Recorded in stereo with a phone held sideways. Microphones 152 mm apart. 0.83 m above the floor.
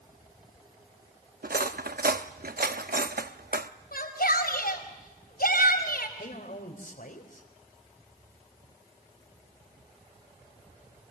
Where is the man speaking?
65° left (ahead or behind), 3.5 m.